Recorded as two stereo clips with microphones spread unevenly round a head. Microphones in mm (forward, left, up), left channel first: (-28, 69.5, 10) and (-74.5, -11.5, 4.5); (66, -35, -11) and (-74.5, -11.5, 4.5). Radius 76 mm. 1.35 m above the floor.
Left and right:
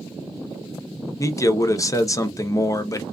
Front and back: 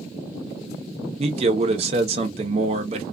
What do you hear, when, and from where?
1.2 s a man speaking: 115° left, 0.7 m